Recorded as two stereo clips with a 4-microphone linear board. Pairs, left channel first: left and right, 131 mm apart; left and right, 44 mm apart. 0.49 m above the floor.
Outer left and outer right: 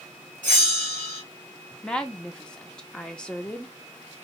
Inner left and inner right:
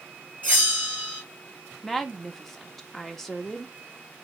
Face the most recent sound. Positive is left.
turn(degrees=5)  # may be behind; listen again after turning